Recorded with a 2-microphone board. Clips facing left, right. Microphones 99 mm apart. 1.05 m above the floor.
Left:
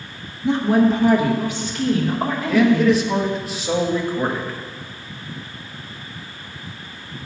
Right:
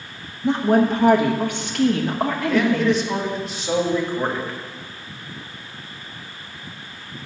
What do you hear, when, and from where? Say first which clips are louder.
0.4 s a woman speaking: left 1 dB; 45° right (ahead or behind), 1.4 m; by 3.0 s 65° right (ahead or behind), 1.3 m
2.5 s a man speaking: left 4 dB; 5° left (ahead or behind), 1.2 m